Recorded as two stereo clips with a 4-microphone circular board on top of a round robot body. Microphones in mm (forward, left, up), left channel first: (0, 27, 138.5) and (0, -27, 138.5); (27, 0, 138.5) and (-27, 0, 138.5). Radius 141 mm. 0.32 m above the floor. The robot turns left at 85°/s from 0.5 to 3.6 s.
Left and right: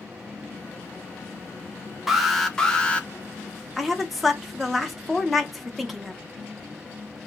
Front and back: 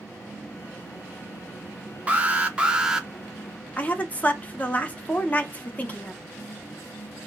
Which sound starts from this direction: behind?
An alarm, at 2.1 s.